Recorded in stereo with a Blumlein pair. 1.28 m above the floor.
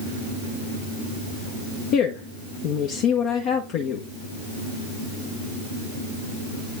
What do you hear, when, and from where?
1.9 s a woman speaking: 40° left, 1.3 m